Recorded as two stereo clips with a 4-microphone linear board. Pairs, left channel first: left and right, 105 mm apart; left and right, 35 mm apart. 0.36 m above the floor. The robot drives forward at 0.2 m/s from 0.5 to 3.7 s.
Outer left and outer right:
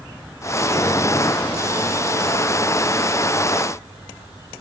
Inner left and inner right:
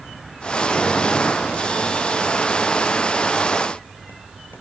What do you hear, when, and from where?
Only background noise.